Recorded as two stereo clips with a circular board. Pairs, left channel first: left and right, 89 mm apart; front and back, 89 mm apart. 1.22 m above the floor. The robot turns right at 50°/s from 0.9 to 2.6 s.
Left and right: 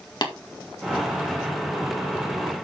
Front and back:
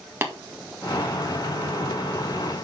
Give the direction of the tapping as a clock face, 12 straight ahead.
8 o'clock.